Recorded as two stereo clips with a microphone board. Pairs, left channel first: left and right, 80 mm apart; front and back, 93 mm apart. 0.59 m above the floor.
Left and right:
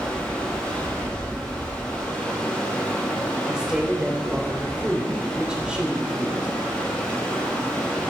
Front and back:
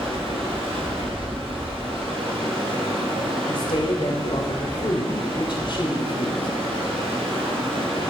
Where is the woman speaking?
10° right, 2.5 m.